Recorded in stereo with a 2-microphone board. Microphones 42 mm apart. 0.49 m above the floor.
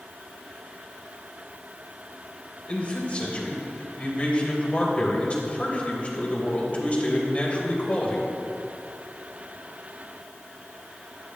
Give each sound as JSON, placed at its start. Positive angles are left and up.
{"t": 2.7, "sound": "a man speaking", "side_deg": 35, "distance_m": 3.0}